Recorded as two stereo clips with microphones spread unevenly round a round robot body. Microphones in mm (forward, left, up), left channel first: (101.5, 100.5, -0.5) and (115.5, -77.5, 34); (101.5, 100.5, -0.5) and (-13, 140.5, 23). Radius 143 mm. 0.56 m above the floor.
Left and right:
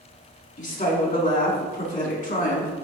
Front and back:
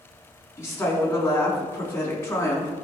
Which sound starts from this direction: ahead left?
A woman speaking, at 0.6 s.